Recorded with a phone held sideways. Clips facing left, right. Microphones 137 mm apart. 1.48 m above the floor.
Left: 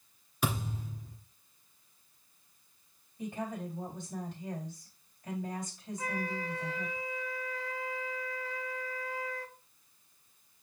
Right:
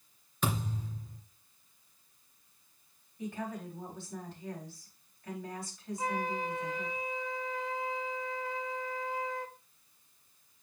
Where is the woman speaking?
20° left (ahead or behind), 3.5 m.